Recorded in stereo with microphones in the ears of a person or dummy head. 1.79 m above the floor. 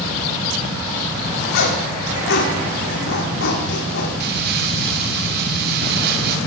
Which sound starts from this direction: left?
A zipper, at 1.5 s.